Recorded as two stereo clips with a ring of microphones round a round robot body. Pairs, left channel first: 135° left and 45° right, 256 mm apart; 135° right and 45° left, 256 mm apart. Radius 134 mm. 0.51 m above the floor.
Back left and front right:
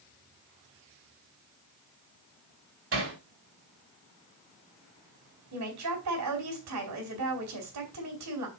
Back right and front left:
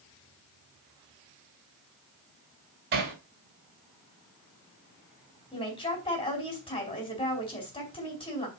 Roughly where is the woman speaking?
Ahead right.